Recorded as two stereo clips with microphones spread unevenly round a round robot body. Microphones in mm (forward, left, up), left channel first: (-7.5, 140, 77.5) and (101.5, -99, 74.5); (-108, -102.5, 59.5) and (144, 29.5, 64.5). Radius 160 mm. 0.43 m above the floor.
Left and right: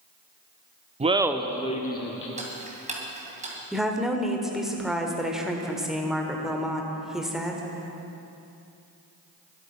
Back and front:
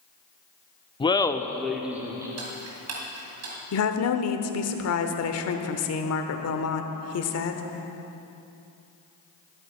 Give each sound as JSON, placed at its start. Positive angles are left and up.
{"t": 1.0, "sound": "laughter", "azimuth_deg": -100, "distance_m": 0.8}
{"t": 2.4, "sound": "ticking", "azimuth_deg": 0, "distance_m": 2.5}
{"t": 3.7, "sound": "a woman speaking", "azimuth_deg": -155, "distance_m": 1.2}